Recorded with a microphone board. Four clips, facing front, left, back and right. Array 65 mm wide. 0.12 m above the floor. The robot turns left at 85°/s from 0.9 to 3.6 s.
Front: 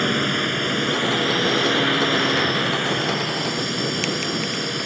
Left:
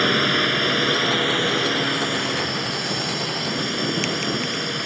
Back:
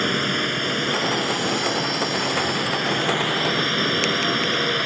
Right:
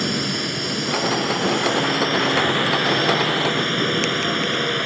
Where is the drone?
85° left; by 4.9 s 145° right.